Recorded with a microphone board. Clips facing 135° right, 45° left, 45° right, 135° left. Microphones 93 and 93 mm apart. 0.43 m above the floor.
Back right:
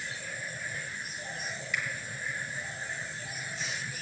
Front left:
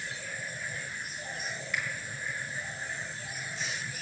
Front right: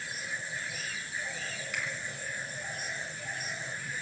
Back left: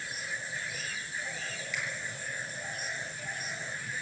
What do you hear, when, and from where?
1.7 s a finger snap: 5° right, 8 m